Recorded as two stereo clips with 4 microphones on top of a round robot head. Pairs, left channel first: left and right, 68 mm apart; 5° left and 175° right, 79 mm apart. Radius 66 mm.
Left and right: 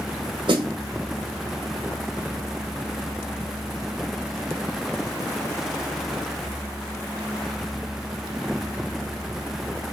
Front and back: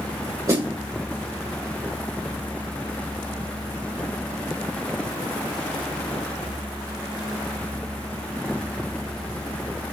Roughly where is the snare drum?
Behind right.